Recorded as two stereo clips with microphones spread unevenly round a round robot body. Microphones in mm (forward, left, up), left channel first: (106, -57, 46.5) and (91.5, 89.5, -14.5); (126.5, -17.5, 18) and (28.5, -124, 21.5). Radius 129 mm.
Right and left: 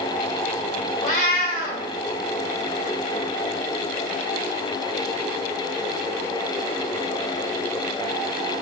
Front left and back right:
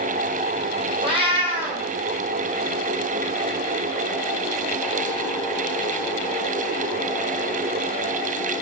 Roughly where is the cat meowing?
Right.